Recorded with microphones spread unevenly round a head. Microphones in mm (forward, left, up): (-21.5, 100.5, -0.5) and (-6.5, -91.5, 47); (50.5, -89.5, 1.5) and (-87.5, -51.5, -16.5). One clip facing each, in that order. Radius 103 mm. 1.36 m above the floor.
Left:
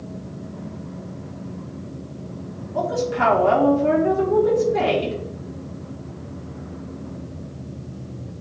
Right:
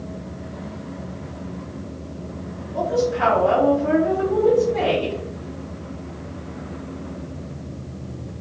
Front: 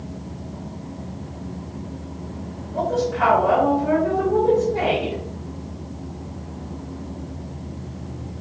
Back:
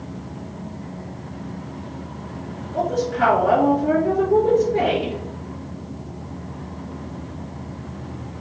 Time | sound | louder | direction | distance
2.7 | a woman speaking | right 2 dB, even | 105° left | 4 m